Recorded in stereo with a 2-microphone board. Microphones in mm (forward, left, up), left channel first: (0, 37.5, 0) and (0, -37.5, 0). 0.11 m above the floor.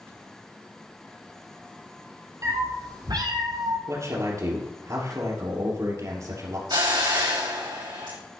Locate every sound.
2.4 s a cat meowing: 45° right (ahead or behind), 1.7 m; by 3.8 s 75° right (ahead or behind), 2 m
3.9 s a man speaking: 45° right (ahead or behind), 2.5 m
6.7 s a hiss: 80° right, 3.5 m